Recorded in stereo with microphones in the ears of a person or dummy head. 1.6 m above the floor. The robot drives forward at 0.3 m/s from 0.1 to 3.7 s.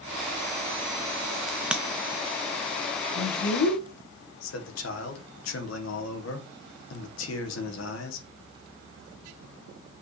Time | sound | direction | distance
1.5 | a crack | 5° right (ahead or behind) | 0.5 m
3.1 | a man speaking | 75° left (ahead or behind) | 1.5 m